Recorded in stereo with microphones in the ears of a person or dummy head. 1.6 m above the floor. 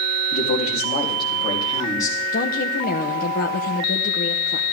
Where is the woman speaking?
50° left (ahead or behind), 1.0 m.